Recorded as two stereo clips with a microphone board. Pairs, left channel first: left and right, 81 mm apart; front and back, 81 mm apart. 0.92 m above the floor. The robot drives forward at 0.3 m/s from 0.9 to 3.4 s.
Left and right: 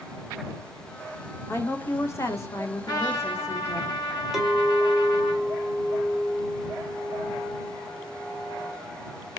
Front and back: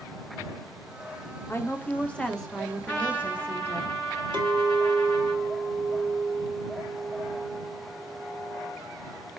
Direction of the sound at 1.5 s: 45° left.